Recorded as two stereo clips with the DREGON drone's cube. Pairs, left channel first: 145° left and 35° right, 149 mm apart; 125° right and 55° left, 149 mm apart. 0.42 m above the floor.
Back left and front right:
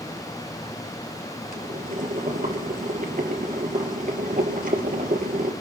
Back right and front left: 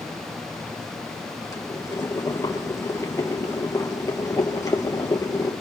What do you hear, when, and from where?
1.5 s boiling: 55° right, 2.5 m